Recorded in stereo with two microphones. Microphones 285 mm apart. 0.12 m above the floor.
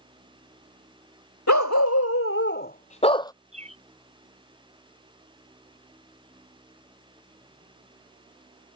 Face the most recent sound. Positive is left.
turn(degrees=-25)  # may be behind; listen again after turning